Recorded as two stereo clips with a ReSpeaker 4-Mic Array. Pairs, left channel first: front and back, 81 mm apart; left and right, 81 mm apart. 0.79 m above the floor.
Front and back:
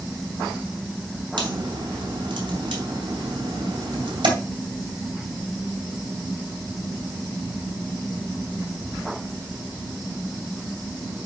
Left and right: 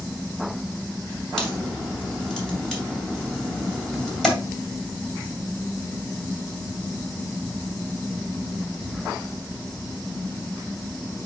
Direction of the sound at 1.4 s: 170° left.